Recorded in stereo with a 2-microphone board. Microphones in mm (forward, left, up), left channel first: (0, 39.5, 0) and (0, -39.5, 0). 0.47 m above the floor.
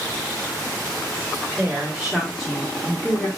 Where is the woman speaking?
15° right (ahead or behind), 1.2 m; by 3.3 s 20° left (ahead or behind), 1.1 m.